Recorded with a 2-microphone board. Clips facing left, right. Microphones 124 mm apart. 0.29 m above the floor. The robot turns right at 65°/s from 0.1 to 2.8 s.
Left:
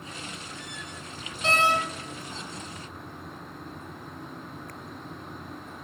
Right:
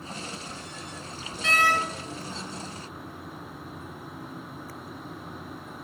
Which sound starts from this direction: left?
A door slam, at 1.4 s.